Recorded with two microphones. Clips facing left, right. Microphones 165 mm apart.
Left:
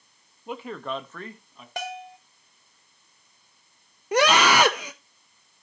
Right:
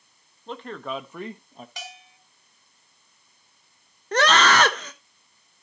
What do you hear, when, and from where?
0.5 s a man speaking: 10° left (ahead or behind), 1.6 m; by 1.7 s 45° right (ahead or behind), 1.0 m
1.8 s a bell: 55° left (ahead or behind), 0.7 m
4.1 s a scream: 10° left (ahead or behind), 0.7 m